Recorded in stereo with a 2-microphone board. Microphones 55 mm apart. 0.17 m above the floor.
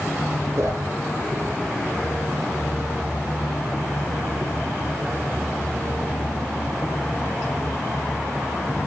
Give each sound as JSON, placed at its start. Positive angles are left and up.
{"t": 0.6, "sound": "a whoosh", "side_deg": -55, "distance_m": 1.0}